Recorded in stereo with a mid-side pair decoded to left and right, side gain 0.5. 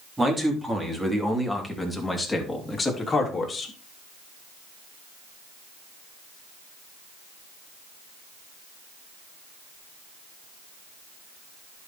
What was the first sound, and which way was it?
A man speaking, 15° right.